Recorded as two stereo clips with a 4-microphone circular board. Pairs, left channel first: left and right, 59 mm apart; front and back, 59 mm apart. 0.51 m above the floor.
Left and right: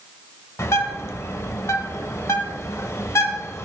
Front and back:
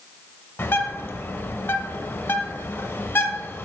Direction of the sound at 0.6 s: 50° left.